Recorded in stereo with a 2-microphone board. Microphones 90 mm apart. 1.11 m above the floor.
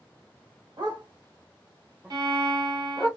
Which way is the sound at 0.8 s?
55° right (ahead or behind).